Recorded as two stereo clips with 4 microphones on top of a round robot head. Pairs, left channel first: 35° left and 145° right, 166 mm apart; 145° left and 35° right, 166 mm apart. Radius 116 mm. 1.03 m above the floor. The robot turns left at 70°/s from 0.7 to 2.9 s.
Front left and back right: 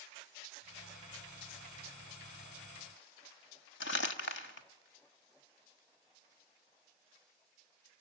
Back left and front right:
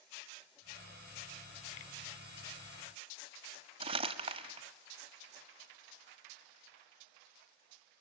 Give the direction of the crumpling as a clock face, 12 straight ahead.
11 o'clock.